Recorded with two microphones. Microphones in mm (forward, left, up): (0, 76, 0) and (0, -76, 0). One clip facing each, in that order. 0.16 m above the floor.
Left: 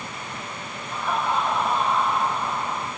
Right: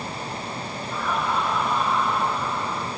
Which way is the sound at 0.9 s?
25° left (ahead or behind).